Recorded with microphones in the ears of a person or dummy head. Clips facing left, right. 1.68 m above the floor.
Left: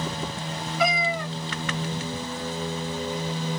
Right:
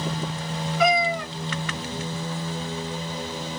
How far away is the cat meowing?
About 2 m.